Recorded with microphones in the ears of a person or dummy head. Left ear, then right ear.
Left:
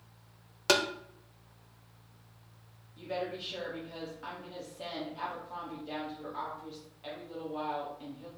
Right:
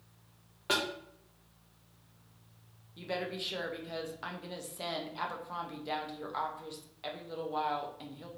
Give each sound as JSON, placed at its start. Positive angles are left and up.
{"t": 0.7, "sound": "tapping", "side_deg": 85, "distance_m": 0.6}
{"t": 3.0, "sound": "a woman speaking", "side_deg": -45, "distance_m": 0.6}